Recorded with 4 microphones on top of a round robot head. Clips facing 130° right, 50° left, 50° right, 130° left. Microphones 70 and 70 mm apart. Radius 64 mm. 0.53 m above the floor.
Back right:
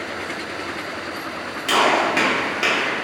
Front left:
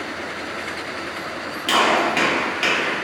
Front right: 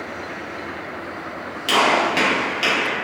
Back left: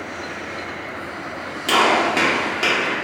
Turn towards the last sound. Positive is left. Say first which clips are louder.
# even, back left 1 dB
turn(degrees=170)